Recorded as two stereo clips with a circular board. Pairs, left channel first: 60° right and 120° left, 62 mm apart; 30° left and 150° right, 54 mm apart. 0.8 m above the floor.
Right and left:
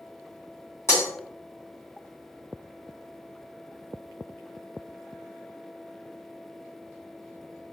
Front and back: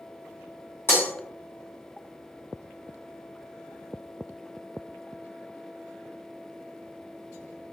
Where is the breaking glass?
15° right, 2 m.